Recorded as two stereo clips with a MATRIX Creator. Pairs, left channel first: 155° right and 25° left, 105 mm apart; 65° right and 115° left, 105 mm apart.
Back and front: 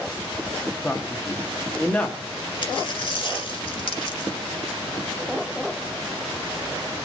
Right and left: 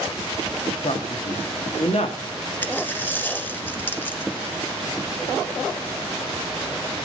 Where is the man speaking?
85° right, 1.6 m.